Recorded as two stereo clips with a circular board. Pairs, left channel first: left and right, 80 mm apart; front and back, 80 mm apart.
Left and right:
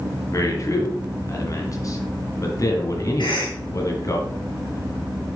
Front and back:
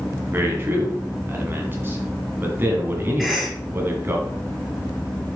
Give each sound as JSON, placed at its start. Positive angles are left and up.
{"t": 0.3, "sound": "a man speaking", "azimuth_deg": 125, "distance_m": 2.0}
{"t": 3.2, "sound": "a cough", "azimuth_deg": 90, "distance_m": 4.0}